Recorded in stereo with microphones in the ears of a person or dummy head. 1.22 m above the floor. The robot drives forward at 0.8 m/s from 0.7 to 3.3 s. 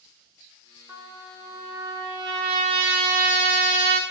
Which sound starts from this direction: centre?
A trumpet, at 0.9 s.